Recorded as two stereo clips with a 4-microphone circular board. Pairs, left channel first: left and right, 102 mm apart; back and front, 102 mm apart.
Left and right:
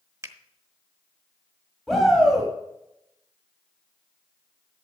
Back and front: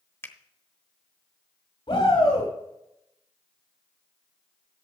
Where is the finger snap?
130° right, 1.0 m.